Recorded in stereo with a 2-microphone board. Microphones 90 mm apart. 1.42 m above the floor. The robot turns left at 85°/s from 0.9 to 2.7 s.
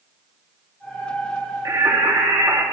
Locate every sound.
1.6 s singing: 45° right, 2 m; by 2.6 s 130° right, 2 m